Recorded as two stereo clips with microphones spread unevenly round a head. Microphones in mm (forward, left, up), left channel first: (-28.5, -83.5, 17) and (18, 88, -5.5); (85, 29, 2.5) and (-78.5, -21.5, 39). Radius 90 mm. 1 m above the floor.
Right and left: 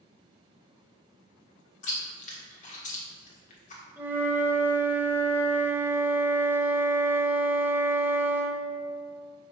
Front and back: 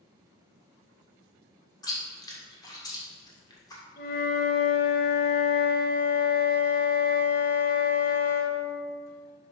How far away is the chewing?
About 1.7 m.